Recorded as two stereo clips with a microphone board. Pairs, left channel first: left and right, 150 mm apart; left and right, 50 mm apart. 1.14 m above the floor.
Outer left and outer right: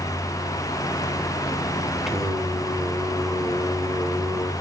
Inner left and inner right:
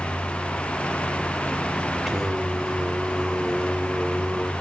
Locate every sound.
2.1 s singing: 5° right (ahead or behind), 1.2 m